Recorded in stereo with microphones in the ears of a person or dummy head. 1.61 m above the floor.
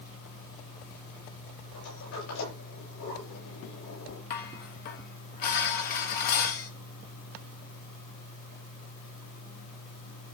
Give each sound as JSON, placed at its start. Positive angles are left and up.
{"t": 1.7, "sound": "a sliding door", "side_deg": 75, "distance_m": 9.5}
{"t": 4.3, "sound": "dishes clattering", "side_deg": 40, "distance_m": 1.7}